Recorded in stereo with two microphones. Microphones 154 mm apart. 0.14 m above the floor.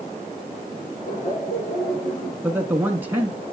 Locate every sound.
1.1 s laughter: 65° left (ahead or behind), 4.5 m
2.4 s a man speaking: 15° right (ahead or behind), 1.2 m